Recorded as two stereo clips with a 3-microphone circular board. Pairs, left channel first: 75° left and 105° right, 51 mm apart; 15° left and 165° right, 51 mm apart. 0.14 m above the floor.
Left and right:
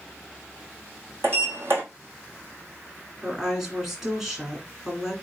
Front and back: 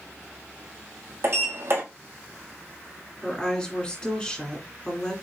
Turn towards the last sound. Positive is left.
turn(degrees=-25)